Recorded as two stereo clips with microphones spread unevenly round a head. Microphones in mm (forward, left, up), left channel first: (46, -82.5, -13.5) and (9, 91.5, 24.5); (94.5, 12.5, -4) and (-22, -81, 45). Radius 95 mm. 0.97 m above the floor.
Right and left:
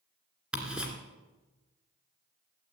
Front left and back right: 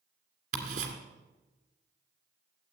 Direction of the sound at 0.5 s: Straight behind.